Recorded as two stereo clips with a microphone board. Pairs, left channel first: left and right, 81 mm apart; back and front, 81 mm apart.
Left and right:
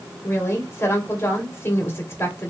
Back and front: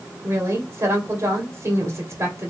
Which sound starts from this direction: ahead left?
A woman speaking, at 0.2 s.